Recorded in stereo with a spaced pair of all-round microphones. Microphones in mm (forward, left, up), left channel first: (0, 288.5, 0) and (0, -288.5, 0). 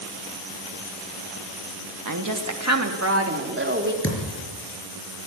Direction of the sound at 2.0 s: 35° right (ahead or behind).